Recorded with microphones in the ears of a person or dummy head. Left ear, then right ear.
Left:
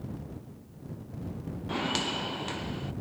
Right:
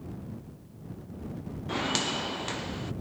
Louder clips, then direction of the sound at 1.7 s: Right 1 dB; 5° right (ahead or behind).